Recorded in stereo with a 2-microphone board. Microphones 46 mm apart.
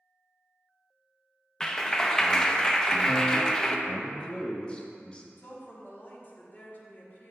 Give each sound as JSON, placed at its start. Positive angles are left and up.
{"t": 1.6, "sound": "a clap", "side_deg": 15, "distance_m": 0.5}
{"t": 3.9, "sound": "a man speaking", "side_deg": 25, "distance_m": 0.9}
{"t": 5.4, "sound": "a woman speaking", "side_deg": 40, "distance_m": 1.5}